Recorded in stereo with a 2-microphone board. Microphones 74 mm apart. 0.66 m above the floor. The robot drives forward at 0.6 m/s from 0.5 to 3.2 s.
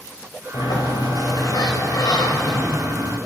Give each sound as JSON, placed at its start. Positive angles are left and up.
{"t": 0.5, "sound": "a sliding door", "side_deg": 70, "distance_m": 3.0}